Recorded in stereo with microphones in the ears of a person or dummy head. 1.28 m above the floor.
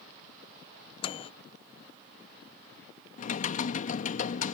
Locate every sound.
1.0 s a microwave: 25° left (ahead or behind)
3.2 s typing on a keyboard: 40° left (ahead or behind)